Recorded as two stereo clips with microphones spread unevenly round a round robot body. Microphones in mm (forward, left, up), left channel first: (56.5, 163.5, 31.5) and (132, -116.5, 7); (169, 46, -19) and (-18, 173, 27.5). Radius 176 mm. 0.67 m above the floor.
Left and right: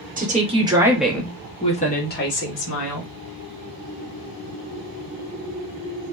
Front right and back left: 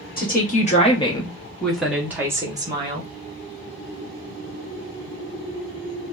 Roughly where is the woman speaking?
Ahead right.